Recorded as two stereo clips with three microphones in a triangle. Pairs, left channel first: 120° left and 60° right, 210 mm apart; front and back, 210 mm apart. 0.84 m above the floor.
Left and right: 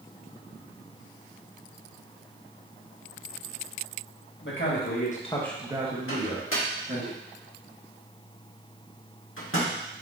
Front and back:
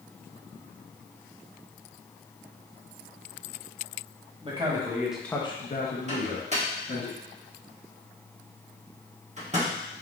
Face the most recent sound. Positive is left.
turn(degrees=125)